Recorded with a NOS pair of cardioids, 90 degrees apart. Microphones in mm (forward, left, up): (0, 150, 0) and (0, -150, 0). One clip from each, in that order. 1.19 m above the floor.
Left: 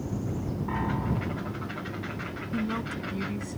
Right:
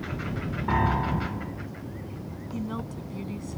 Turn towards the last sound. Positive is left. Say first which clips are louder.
# left 3 dB
turn(degrees=20)